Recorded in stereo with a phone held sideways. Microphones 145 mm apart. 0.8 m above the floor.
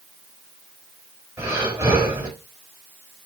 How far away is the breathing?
About 4 m.